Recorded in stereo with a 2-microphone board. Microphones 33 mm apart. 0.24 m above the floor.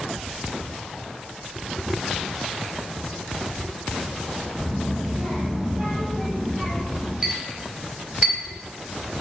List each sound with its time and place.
4.6 s a child speaking: 50° right (ahead or behind), 1.0 m; by 7.1 s 10° left (ahead or behind), 1.1 m
7.2 s a clink: 20° right (ahead or behind), 0.6 m